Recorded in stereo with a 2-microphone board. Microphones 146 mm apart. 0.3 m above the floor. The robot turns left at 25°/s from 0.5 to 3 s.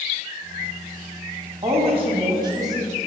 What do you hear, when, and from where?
1.6 s a woman speaking: 125° right, 2 m; by 2.9 s 155° right, 2 m